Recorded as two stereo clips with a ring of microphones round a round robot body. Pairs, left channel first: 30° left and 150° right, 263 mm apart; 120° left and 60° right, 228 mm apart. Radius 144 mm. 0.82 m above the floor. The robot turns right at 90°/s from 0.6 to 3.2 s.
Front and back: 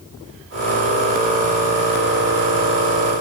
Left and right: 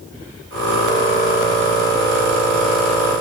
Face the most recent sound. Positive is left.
No sound to turn to.